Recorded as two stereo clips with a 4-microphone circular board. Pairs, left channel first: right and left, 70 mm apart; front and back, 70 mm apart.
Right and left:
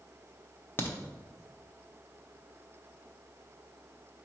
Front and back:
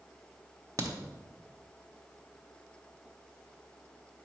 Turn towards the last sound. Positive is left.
turn(degrees=-145)